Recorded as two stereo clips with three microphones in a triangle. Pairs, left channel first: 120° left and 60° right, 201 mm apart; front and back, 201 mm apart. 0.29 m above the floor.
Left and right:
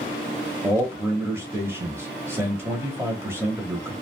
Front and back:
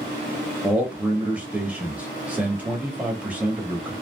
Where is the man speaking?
110° right, 0.9 m.